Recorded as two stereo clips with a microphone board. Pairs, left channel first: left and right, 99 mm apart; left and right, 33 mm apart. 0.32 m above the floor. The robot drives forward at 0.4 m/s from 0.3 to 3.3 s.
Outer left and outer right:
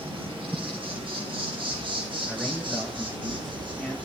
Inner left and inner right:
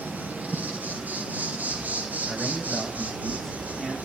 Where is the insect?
65° right (ahead or behind), 5 m; by 4.0 s 55° right (ahead or behind), 5.5 m.